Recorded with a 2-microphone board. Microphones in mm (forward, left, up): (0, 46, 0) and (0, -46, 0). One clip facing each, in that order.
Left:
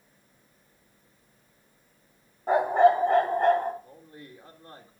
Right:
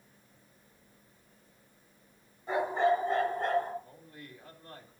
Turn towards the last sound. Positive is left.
turn(degrees=35)  # may be behind; listen again after turning